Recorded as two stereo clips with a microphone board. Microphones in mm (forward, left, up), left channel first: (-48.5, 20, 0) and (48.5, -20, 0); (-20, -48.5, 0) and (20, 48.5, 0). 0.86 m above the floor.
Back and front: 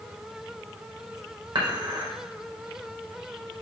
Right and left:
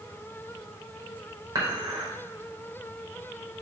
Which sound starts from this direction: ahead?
Dishes clattering, at 1.6 s.